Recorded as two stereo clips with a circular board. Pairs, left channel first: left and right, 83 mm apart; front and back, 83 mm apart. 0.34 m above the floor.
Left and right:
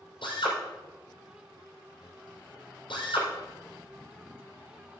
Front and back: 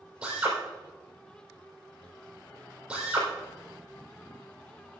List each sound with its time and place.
0.2 s a drill: 105° left, 6.5 m